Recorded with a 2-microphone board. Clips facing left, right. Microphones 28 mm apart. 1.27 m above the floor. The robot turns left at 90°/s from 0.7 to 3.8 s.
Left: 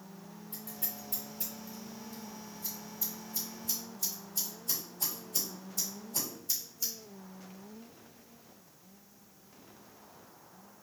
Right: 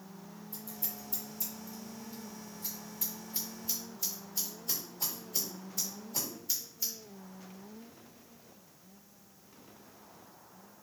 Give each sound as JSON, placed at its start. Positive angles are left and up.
{"t": 0.5, "sound": "scissors", "side_deg": 70, "distance_m": 2.5}